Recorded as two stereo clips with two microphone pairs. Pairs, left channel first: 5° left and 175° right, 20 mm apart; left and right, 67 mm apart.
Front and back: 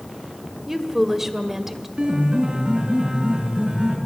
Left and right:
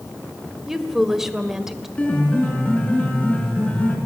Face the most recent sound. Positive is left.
turn(degrees=155)